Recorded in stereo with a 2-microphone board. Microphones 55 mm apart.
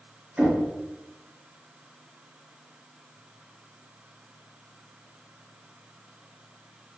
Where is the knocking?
30° right (ahead or behind), 1.5 m.